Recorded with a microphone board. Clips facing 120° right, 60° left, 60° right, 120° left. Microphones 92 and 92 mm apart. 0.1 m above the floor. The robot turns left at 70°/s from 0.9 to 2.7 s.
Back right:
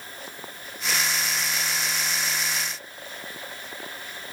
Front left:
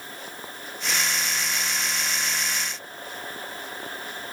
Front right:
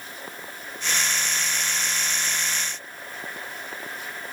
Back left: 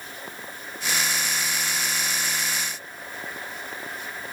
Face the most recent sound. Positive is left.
No sound to turn to.